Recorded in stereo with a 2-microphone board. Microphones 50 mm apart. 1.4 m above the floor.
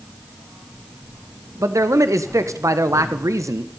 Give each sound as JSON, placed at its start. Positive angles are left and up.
{"t": 1.6, "sound": "a man speaking", "side_deg": -80, "distance_m": 0.9}